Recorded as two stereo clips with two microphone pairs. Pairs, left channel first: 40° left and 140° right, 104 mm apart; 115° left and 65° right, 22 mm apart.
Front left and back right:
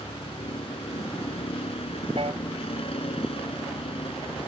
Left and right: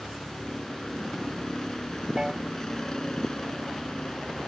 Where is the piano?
135° right.